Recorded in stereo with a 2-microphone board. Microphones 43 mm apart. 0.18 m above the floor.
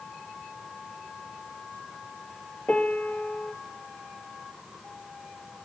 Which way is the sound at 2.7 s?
35° left (ahead or behind).